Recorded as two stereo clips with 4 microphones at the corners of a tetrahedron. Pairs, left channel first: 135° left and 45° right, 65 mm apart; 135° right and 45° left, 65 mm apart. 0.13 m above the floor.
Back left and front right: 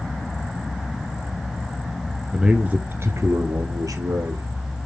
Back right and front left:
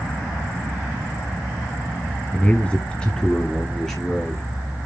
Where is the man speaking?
125° right, 1.0 m; by 4.5 s 50° right, 2.5 m.